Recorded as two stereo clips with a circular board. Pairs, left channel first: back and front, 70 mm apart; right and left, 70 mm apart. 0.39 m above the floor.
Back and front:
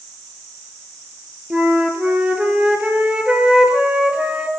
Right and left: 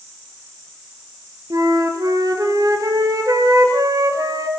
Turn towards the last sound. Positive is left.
turn(degrees=75)